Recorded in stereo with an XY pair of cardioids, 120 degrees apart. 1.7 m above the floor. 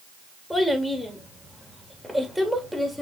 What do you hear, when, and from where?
0.5 s a child speaking: straight ahead, 3 m